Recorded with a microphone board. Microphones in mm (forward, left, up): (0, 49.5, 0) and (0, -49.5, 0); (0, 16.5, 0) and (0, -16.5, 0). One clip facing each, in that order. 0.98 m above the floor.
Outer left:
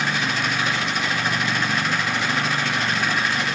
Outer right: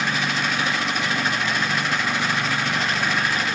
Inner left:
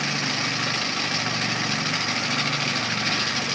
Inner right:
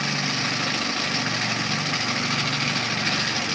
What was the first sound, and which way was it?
Only background noise.